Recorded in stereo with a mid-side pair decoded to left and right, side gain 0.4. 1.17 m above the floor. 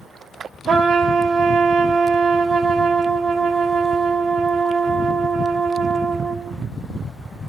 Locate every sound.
0.7 s a trumpet: 50° right, 1.6 m